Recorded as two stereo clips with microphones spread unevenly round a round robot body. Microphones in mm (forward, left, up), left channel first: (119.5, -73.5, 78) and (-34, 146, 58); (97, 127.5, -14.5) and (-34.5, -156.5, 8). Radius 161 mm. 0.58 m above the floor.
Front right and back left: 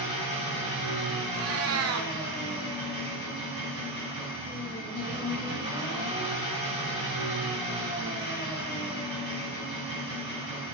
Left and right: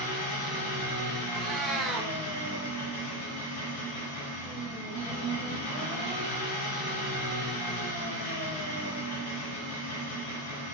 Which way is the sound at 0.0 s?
55° left.